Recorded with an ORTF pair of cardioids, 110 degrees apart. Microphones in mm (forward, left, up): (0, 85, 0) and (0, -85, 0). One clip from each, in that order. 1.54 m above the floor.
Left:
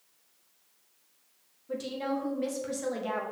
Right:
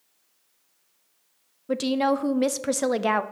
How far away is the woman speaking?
About 0.5 m.